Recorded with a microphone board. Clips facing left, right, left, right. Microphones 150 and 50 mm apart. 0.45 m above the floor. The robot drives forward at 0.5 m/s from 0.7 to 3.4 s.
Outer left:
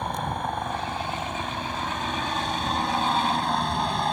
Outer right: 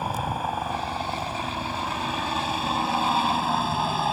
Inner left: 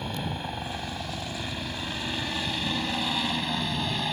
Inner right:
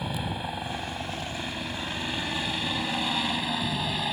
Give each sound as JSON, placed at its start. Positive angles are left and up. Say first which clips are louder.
{"t": 0.0, "sound": "a helicopter", "louder": "outer right 1 dB, inner right 1 dB", "side_deg": -5}